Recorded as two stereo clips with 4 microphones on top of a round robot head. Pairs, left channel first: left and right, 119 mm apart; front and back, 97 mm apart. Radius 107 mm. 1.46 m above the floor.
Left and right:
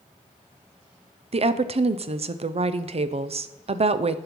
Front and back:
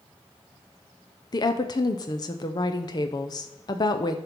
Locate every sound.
1.3 s a woman speaking: 50° right, 0.6 m